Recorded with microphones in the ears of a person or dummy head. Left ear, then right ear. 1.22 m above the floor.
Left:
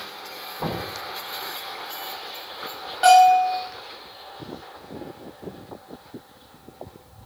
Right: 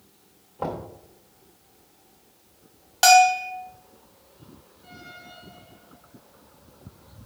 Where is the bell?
55° right (ahead or behind), 1.1 m.